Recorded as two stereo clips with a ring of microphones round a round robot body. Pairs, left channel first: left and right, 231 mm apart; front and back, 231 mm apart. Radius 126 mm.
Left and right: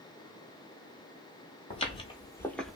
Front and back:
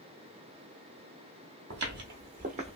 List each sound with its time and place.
1.7 s footsteps: 145° left, 1.1 m; by 2.8 s 170° right, 0.7 m